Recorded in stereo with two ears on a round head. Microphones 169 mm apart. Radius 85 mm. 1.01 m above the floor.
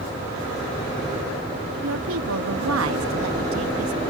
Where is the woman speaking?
80° right.